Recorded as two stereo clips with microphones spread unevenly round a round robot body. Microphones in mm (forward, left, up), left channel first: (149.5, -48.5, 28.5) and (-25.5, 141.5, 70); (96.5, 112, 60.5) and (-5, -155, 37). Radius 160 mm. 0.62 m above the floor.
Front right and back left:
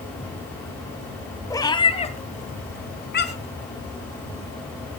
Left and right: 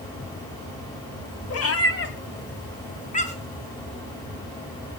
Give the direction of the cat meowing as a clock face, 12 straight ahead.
11 o'clock.